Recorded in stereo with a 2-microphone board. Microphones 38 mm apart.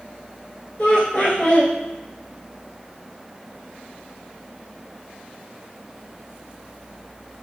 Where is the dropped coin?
I don't hear a dropped coin.